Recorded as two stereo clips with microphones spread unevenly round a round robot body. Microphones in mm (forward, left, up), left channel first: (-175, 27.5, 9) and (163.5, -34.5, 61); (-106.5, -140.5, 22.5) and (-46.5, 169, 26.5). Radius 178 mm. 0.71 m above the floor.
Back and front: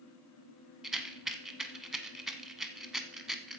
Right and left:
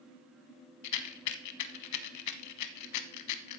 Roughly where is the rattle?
Right.